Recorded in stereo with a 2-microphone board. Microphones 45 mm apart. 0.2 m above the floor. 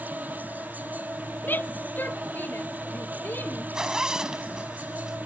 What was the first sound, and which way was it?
An insect, 40° right (ahead or behind).